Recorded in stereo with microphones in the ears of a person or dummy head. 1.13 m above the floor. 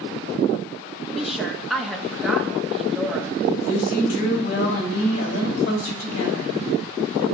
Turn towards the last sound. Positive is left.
turn(degrees=60)  # may be behind; listen again after turning